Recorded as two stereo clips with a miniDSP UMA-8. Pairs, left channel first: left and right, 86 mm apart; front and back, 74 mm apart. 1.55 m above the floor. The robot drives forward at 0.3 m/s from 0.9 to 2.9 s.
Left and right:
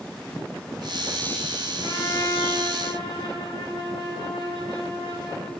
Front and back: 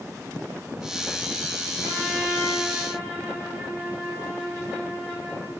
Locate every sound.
1.8 s a trumpet: 115° left, 5 m; by 5.5 s 120° left, 5 m